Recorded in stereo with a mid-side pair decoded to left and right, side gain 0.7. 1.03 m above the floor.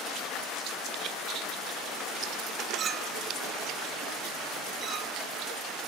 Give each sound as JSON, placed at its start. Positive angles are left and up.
{"t": 2.8, "sound": "a clink", "azimuth_deg": -35}